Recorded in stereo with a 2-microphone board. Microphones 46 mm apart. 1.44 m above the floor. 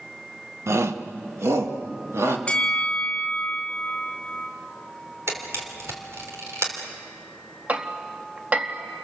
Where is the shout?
85° right, 1.1 m; by 2.4 s 90° right, 3 m.